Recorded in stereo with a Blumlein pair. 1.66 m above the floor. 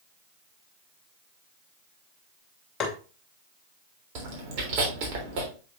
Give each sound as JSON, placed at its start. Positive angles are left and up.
{"t": 2.8, "sound": "tapping", "azimuth_deg": 20, "distance_m": 2.0}
{"t": 4.2, "sound": "chewing", "azimuth_deg": -45, "distance_m": 3.5}